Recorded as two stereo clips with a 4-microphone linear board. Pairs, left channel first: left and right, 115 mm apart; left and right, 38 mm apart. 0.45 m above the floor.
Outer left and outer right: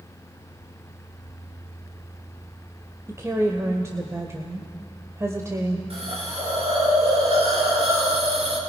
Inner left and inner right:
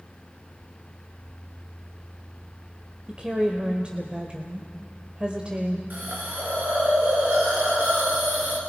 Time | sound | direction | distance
3.1 | a woman speaking | 30° right (ahead or behind) | 1.5 m
5.9 | a hiss | 60° right (ahead or behind) | 5.5 m